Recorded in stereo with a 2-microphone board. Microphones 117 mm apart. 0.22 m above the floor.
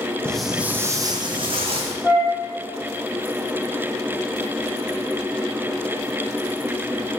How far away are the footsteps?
About 0.6 m.